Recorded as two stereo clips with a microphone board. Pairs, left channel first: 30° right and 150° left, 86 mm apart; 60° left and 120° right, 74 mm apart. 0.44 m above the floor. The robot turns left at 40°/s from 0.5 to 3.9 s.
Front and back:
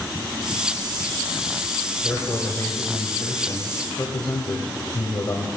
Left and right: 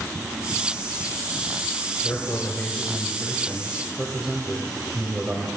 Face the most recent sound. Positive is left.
turn(degrees=-50)